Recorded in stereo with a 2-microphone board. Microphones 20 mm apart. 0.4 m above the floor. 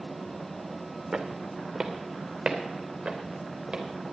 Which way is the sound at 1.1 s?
60° right (ahead or behind).